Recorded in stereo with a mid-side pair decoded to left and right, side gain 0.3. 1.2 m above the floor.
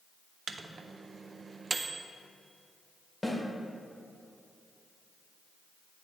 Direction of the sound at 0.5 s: 50° right.